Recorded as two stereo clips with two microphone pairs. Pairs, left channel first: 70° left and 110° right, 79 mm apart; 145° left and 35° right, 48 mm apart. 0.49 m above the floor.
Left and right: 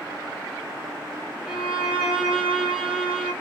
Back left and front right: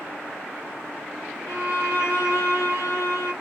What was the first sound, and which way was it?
A violin, 175° left.